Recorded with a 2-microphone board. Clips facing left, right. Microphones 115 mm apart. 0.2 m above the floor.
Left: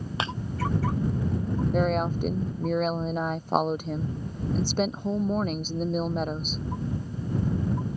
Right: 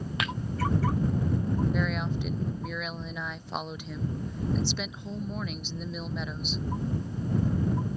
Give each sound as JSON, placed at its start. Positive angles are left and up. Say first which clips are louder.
{"t": 0.2, "sound": "breaking glass", "louder": "left 3 dB", "side_deg": 30}
{"t": 1.7, "sound": "a woman speaking", "louder": "left 5 dB", "side_deg": 45}